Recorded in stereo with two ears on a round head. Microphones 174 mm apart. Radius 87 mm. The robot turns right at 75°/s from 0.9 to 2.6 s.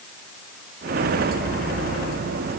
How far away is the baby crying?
No baby crying in this recording.